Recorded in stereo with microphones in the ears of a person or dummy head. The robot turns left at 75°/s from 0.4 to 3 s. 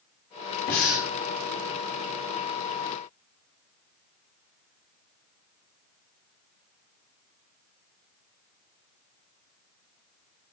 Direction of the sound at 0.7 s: 105° left.